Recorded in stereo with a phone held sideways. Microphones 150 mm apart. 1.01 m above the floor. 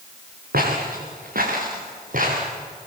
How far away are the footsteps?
About 6 m.